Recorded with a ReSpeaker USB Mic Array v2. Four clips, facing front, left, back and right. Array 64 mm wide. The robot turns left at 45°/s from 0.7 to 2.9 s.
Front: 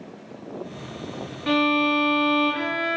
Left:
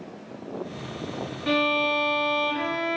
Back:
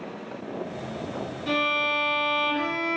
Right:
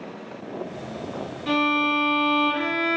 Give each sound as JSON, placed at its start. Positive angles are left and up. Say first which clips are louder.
{"t": 1.5, "sound": "a violin", "louder": "right 1 dB, front 5 dB", "azimuth_deg": 20, "distance_m": 0.6}